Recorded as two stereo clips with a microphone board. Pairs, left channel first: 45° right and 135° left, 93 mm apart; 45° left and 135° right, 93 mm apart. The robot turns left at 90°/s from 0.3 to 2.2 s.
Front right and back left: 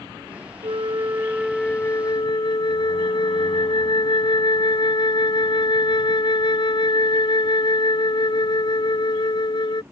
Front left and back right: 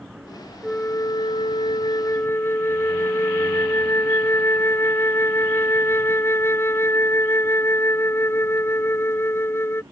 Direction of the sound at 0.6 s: 125° left.